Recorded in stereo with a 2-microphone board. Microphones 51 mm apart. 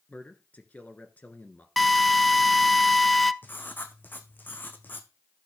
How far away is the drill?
About 0.5 m.